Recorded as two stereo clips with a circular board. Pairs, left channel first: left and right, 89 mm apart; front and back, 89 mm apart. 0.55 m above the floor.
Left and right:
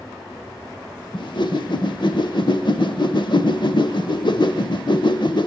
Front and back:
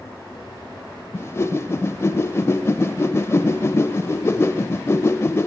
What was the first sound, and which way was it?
A whoosh, 60° left.